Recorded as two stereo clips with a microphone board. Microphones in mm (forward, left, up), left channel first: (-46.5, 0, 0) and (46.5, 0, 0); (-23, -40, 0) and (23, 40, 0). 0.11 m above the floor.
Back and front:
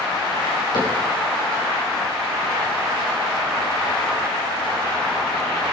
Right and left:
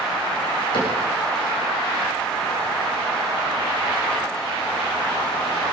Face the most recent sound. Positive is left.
turn(degrees=-145)